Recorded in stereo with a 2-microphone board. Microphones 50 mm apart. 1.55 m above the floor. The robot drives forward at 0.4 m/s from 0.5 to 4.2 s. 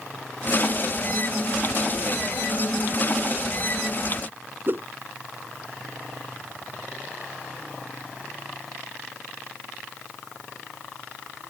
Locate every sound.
4.7 s a whoosh: 50° right (ahead or behind)